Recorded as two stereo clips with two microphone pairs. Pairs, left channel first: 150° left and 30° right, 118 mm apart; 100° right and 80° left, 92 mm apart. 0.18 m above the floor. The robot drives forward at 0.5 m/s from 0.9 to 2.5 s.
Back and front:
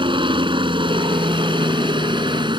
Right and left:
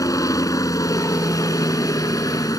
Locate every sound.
0.0 s a helicopter: 60° right; by 2.6 s 65° right